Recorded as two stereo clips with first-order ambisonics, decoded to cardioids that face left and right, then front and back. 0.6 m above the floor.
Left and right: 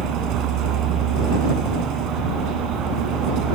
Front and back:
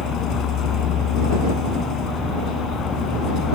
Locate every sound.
0.0 s a vehicle: 50° right